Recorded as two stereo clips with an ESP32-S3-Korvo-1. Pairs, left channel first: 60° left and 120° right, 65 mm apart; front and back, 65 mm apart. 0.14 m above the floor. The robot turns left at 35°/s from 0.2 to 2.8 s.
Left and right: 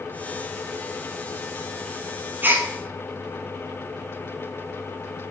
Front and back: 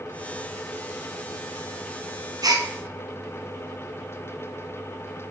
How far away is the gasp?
About 1.2 m.